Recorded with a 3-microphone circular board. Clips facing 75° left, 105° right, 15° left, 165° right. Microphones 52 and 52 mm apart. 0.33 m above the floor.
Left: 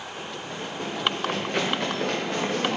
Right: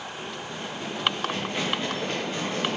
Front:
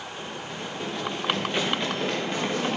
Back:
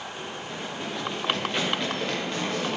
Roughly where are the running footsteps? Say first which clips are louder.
Left 3 dB, front 1 dB; behind left.